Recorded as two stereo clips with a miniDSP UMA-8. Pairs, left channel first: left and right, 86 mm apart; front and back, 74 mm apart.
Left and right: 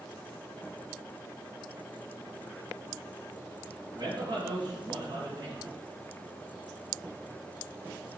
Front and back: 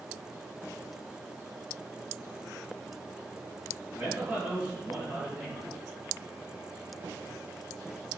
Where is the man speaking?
100° right, 3 m.